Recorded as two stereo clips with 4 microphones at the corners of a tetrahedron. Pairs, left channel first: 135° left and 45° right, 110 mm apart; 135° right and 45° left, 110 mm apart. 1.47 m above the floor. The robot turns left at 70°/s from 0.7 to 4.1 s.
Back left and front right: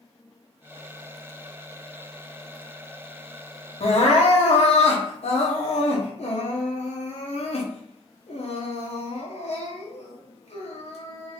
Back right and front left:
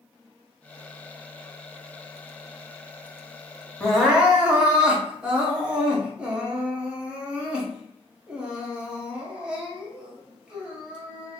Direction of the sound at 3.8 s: 145° left.